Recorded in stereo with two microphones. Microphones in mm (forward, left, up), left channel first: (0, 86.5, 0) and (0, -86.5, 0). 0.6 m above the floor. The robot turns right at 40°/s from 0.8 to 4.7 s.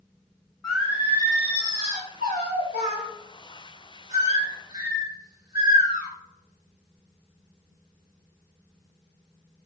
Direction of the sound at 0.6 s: 175° right.